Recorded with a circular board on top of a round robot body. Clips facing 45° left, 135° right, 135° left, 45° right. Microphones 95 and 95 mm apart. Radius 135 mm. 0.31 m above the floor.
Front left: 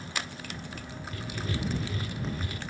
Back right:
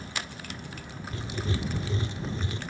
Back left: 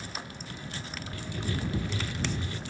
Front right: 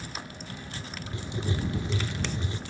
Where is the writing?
95° right.